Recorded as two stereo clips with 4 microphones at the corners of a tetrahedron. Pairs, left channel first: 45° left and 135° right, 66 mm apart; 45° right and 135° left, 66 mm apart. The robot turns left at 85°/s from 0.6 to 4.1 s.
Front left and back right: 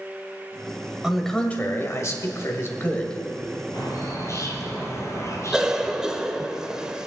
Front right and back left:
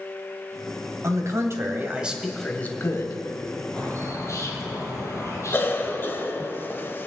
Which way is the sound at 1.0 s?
150° left.